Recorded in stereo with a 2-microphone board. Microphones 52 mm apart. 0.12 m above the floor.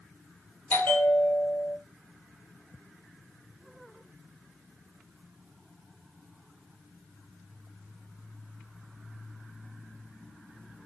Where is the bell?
35° left (ahead or behind), 1.5 m.